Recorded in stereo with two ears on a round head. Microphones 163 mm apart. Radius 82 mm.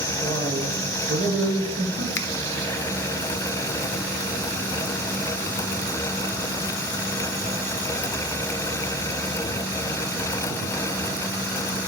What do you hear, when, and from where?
0.2 s a man speaking: 55° right (ahead or behind), 1.7 m
2.1 s a finger snap: 70° left (ahead or behind), 0.7 m